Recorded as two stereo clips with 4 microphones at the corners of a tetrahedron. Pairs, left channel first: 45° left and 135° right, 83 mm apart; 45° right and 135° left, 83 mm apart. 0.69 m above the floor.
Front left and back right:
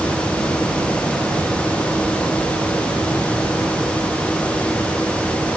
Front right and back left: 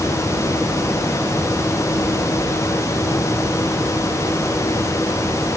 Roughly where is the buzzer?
No buzzer in this recording.